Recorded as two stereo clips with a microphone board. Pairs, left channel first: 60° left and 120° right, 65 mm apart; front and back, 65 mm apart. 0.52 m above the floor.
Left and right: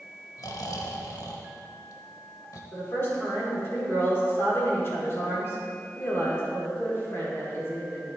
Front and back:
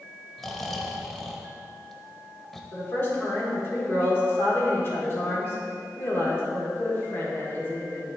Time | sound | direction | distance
0.4 | snoring | 90° left | 0.6 m
2.7 | a woman speaking | 35° left | 1.6 m